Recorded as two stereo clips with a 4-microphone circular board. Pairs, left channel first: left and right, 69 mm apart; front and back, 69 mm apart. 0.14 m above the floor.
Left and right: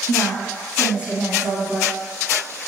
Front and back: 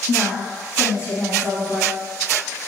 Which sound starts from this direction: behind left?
A woman speaking, at 0.1 s.